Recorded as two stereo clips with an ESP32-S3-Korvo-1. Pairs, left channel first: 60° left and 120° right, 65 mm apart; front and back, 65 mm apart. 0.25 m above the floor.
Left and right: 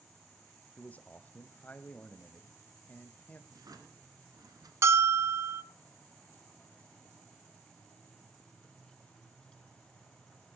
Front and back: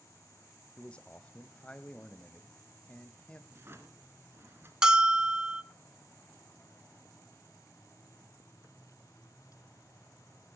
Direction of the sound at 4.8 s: 105° right.